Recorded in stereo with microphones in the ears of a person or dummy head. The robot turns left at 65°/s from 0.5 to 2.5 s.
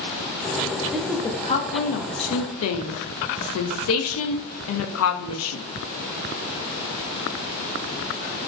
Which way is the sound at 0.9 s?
Centre (ahead or behind).